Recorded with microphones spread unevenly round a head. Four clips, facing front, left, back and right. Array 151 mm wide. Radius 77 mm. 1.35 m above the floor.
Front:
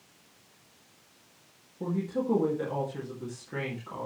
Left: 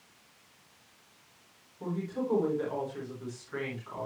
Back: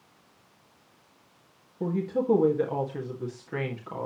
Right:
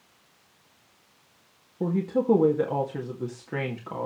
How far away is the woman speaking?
About 2 m.